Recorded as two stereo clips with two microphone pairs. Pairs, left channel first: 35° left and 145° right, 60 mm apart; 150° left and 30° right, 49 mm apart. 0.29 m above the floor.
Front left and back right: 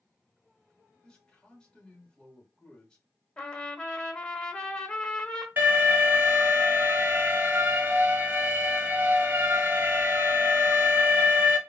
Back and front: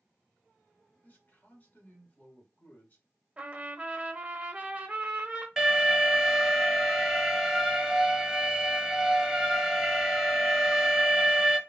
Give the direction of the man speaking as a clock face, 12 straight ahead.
8 o'clock.